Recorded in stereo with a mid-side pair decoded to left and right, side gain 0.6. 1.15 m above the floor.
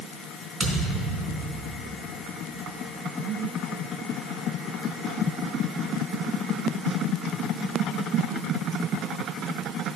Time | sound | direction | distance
0.6 | a thud | 35° right | 3.5 m